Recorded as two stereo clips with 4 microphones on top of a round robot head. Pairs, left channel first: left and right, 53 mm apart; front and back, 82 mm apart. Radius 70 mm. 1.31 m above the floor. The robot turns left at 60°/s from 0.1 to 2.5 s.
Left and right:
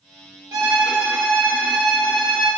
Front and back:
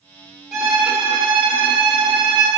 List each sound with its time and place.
0.5 s a violin: 85° right, 1.4 m; by 2.5 s 155° left, 1.4 m